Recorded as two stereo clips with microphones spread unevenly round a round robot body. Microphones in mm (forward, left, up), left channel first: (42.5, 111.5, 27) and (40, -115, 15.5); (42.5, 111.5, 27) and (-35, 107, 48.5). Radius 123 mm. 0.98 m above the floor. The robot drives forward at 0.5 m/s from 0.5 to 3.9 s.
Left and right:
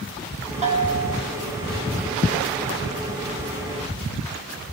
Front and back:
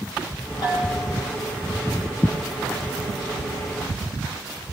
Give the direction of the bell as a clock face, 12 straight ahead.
1 o'clock.